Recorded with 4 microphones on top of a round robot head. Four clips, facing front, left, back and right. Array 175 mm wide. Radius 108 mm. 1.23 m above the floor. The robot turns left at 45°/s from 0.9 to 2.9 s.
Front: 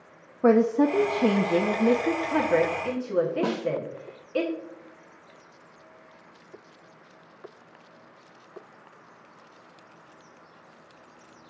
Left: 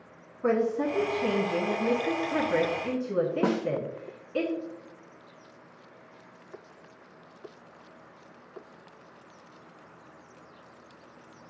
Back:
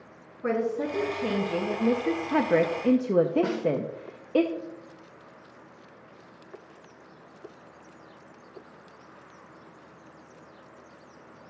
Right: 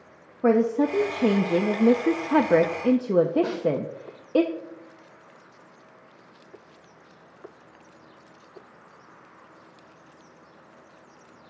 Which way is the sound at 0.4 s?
35° right.